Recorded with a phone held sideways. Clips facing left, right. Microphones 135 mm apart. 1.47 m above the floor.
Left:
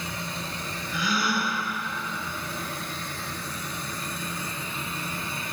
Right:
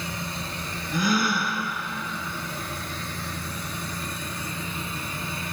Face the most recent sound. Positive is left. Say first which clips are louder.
# right 3 dB
turn(degrees=-45)  # may be behind; listen again after turning